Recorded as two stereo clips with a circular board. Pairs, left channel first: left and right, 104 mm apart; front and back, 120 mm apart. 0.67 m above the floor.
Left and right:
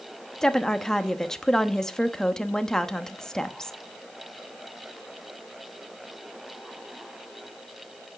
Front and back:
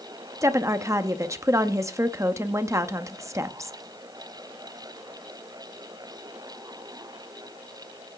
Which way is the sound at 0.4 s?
165° left.